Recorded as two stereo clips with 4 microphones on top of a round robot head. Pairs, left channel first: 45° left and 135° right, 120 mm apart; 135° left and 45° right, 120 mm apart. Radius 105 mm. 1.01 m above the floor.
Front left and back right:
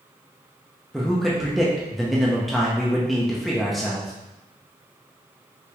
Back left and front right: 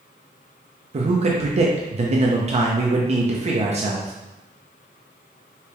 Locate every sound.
0.9 s a man speaking: 45° right, 0.7 m